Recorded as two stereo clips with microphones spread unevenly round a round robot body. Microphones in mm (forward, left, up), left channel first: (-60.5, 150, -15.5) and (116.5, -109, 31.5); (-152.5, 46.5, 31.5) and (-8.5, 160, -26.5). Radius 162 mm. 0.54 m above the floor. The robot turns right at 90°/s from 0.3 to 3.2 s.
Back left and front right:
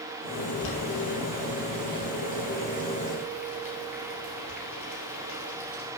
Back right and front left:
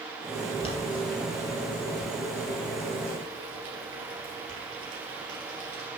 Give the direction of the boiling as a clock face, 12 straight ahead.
7 o'clock.